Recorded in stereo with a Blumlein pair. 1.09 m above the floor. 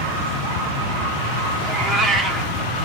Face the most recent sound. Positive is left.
turn(degrees=-15)